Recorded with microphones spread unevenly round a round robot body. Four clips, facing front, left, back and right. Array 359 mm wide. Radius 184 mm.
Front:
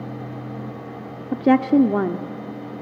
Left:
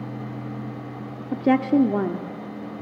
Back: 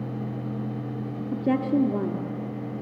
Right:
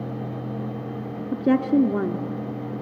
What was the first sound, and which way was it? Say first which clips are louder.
A woman speaking: left 1 dB, front 8 dB; 5° left.